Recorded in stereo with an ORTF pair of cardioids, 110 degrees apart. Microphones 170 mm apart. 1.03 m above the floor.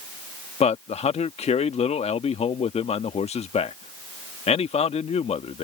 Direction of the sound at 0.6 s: 35° left.